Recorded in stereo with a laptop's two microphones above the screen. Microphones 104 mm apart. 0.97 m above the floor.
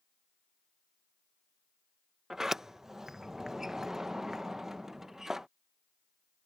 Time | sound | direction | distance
2.3 | a sliding door | 5° right (ahead or behind) | ?